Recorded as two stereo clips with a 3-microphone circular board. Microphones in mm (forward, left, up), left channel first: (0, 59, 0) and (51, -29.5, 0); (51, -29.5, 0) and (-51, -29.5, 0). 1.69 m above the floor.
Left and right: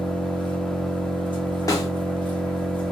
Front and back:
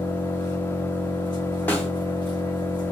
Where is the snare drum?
70° left, 0.9 m.